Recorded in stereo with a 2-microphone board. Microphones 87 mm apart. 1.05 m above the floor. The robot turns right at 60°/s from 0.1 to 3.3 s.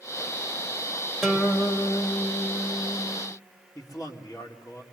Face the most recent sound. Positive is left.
turn(degrees=45)  # may be behind; listen again after turning